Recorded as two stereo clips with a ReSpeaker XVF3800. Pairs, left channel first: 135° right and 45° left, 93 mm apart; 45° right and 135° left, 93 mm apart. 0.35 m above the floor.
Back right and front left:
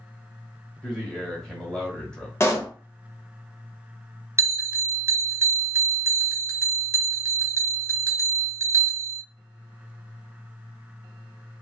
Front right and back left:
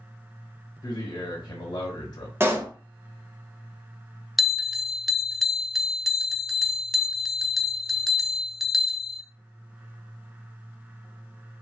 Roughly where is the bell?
Ahead left.